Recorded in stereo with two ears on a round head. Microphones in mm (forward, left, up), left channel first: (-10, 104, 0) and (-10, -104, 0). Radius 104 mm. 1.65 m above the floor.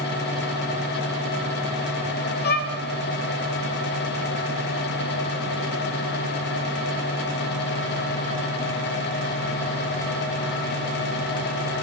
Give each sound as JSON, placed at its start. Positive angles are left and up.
{"t": 2.4, "sound": "a violin", "side_deg": 45, "distance_m": 1.0}